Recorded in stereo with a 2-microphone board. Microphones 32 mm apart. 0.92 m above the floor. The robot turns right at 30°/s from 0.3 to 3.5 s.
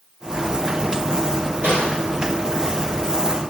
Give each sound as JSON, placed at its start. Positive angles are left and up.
{"t": 1.6, "sound": "a snare drum", "side_deg": -85, "distance_m": 1.6}